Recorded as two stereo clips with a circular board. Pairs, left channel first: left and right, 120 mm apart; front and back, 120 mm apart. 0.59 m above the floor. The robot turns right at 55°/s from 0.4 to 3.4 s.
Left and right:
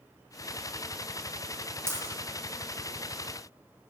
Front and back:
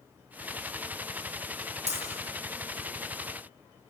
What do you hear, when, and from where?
1.9 s breaking glass: 160° right, 7 m; by 2.0 s 150° right, 7 m